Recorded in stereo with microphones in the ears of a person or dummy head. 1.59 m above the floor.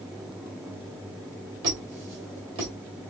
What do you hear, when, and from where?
1.6 s a squeak: 25° right (ahead or behind), 1.5 m